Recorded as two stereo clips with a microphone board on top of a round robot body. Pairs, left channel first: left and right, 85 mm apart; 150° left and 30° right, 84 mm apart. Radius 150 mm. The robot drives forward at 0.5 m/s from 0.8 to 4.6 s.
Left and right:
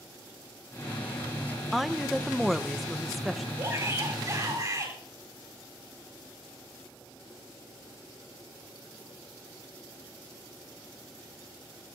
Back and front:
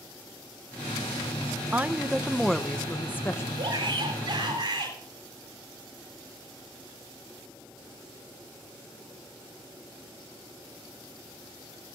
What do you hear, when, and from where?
1.7 s a woman speaking: straight ahead, 1.0 m; by 3.5 s straight behind, 1.1 m
3.6 s a shout: 40° right, 4 m; by 5.0 s 45° right, 3.5 m